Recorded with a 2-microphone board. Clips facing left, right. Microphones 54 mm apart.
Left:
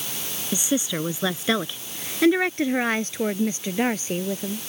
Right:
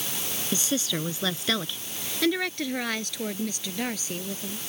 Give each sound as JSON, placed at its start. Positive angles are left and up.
{"t": 0.5, "sound": "a woman speaking", "side_deg": 15}